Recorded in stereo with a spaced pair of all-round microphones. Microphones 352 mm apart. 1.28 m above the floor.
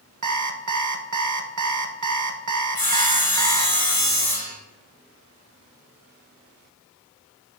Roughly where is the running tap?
No running tap in this recording.